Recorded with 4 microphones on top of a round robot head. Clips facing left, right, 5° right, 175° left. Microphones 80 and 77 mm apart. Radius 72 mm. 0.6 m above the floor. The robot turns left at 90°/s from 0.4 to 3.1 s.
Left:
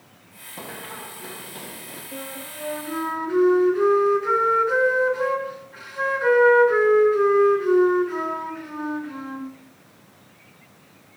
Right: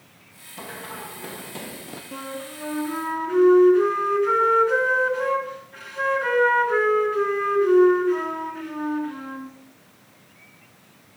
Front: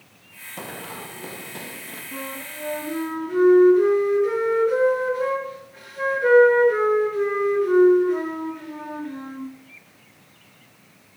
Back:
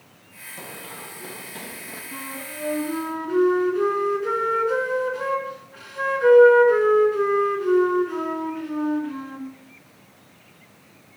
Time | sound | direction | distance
0.6 | running footsteps | 30° left | 3 m
2.1 | a flute | 105° right | 4.5 m